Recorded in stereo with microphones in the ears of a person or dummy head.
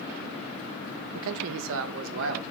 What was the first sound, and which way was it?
A man speaking, 65° right (ahead or behind).